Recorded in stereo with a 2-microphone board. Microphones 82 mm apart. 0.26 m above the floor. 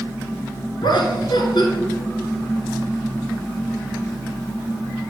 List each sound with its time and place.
0.8 s laughter: 70° left (ahead or behind), 3 m